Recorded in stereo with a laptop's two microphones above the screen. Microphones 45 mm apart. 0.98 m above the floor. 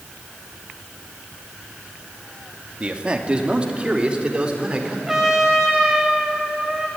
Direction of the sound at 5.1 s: 10° right (ahead or behind).